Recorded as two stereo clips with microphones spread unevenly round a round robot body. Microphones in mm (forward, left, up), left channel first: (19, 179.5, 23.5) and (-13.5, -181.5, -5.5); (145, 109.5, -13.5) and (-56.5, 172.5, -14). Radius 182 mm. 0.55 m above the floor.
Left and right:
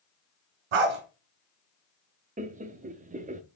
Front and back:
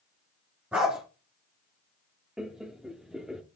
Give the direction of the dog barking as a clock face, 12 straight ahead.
4 o'clock.